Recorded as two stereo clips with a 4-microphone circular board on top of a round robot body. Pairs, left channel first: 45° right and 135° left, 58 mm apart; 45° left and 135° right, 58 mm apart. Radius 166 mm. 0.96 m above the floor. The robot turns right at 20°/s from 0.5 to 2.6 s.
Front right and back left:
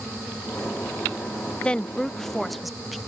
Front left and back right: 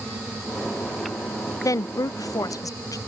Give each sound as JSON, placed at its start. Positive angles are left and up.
{"t": 1.6, "sound": "a woman speaking", "azimuth_deg": 25}